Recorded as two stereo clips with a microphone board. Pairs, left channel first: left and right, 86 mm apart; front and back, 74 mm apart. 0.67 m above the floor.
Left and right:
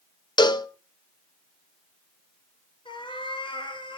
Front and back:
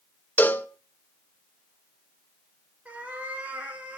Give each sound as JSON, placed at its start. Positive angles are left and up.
{"t": 0.4, "sound": "a cowbell", "azimuth_deg": 65, "distance_m": 1.1}
{"t": 2.9, "sound": "a cat meowing", "azimuth_deg": 110, "distance_m": 3.0}